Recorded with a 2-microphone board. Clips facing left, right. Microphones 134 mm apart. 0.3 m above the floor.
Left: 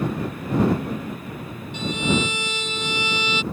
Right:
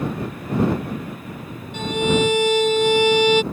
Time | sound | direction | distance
1.7 | a violin | 55° right (ahead or behind) | ?